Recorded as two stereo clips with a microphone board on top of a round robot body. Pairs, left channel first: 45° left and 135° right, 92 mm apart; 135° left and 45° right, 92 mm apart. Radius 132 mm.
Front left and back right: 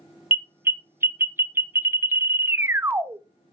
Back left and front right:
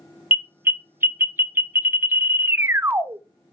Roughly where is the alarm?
Right.